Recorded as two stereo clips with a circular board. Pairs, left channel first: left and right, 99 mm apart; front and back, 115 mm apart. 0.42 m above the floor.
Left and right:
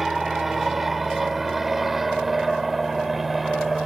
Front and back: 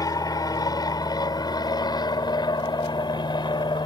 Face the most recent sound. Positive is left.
turn(degrees=-5)